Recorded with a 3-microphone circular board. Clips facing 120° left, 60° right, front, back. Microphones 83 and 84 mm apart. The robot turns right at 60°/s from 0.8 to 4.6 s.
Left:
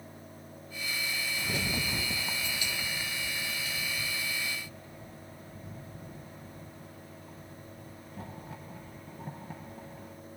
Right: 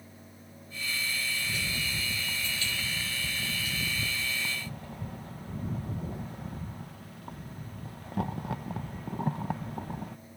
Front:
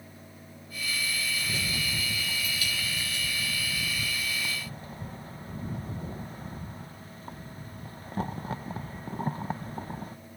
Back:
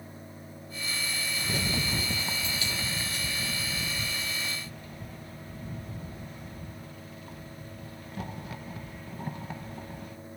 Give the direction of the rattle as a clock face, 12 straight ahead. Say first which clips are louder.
Left 2 dB, back 2 dB; 8 o'clock.